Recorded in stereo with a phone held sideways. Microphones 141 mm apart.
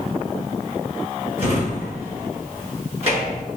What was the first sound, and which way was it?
A drawer, 50° right (ahead or behind).